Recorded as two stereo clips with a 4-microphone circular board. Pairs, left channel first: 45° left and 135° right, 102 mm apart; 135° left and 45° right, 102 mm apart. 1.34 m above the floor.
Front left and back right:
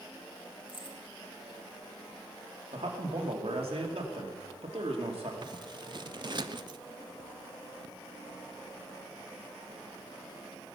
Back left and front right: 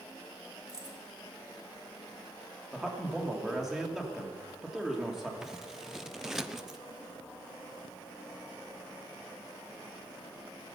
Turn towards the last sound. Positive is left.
turn(degrees=-130)